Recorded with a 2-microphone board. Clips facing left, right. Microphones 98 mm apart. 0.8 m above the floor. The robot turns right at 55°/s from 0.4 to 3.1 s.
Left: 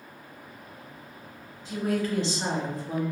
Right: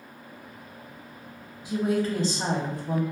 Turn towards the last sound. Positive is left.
turn(degrees=-90)